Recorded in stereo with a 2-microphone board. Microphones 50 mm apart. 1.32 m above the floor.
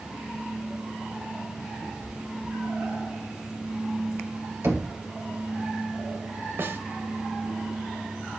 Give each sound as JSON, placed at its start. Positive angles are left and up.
{"t": 1.8, "sound": "a cat meowing", "side_deg": -85, "distance_m": 5.5}
{"t": 4.6, "sound": "knocking", "side_deg": -75, "distance_m": 3.0}
{"t": 6.6, "sound": "a snare drum", "side_deg": -50, "distance_m": 1.5}